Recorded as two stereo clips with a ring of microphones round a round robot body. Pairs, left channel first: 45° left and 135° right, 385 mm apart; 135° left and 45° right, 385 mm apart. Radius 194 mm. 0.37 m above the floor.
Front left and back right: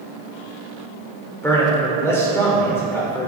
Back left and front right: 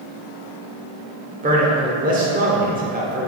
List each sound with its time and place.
1.4 s a man speaking: 25° right, 1.3 m